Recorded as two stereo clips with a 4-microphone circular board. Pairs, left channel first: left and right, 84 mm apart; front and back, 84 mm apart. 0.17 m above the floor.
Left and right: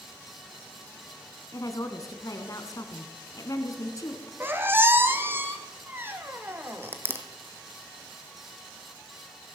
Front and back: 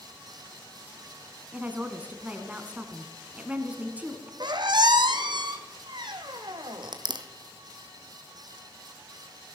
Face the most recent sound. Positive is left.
turn(degrees=-155)